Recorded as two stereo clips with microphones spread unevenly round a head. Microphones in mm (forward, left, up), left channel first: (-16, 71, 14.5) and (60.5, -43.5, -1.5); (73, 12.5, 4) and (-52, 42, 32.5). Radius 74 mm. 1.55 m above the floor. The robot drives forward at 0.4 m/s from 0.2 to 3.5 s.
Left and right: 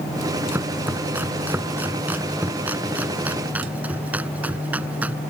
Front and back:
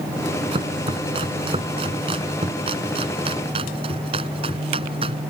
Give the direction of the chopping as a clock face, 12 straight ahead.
5 o'clock.